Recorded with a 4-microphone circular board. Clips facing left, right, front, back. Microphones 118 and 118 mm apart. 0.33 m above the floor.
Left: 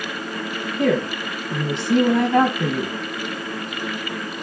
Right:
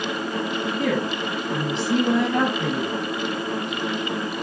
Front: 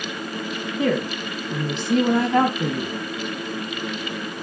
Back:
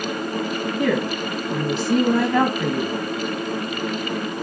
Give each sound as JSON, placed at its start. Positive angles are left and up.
{"t": 0.8, "sound": "a woman speaking", "azimuth_deg": 65, "distance_m": 1.9}